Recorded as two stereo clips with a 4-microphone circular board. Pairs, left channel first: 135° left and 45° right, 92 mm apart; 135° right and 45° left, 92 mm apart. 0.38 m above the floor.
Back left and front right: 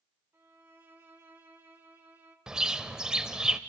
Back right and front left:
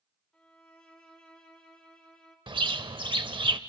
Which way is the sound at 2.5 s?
35° left.